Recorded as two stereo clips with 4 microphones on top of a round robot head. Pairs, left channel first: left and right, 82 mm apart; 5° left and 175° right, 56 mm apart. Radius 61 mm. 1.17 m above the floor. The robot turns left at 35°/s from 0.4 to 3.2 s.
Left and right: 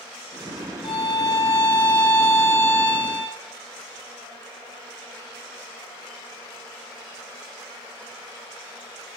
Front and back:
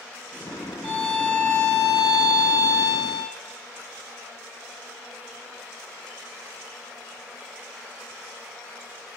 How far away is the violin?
About 3.5 m.